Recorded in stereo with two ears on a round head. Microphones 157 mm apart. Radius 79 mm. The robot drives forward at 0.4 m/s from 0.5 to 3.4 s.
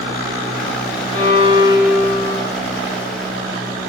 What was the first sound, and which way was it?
A violin, 40° right (ahead or behind).